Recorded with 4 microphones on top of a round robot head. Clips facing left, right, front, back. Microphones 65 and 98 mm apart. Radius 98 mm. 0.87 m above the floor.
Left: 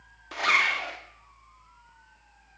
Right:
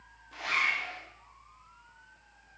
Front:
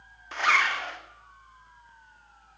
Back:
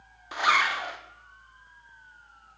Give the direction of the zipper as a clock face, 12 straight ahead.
9 o'clock.